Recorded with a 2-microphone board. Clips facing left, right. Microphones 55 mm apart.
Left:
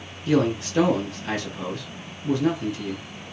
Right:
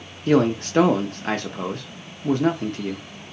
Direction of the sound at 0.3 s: 45° right (ahead or behind).